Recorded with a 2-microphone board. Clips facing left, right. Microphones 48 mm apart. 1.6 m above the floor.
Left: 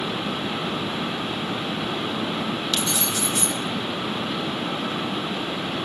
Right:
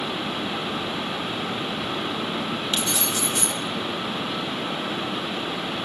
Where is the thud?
No thud in this recording.